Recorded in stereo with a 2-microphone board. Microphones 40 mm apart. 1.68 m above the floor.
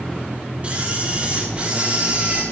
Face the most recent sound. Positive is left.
turn(degrees=-30)  # may be behind; listen again after turning